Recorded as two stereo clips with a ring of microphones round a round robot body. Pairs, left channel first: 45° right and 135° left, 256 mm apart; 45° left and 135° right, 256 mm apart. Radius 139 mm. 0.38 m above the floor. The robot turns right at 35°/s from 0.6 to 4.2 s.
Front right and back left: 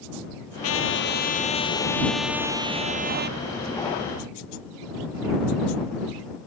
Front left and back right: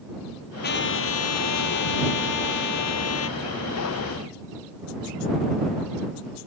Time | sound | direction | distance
0.6 | a trumpet | 10° right | ?